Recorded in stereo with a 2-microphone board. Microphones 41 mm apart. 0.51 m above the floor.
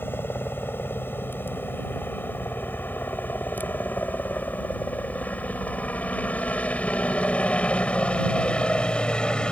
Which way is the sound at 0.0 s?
60° left (ahead or behind).